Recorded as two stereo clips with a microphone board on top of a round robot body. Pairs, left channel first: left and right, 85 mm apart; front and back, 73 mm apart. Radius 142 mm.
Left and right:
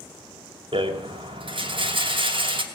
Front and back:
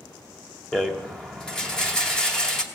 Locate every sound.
0.7 s a rattle: 80° right, 2.5 m